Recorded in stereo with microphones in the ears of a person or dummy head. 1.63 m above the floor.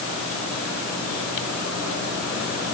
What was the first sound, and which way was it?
Only background noise.